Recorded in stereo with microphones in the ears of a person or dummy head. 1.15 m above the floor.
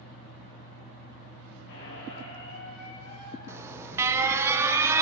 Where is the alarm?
10° right (ahead or behind), 0.9 m.